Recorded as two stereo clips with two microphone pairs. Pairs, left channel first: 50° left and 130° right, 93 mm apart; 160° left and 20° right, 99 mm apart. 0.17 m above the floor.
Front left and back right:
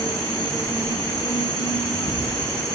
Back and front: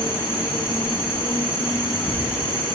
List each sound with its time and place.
0.0 s an insect: 90° left, 3.5 m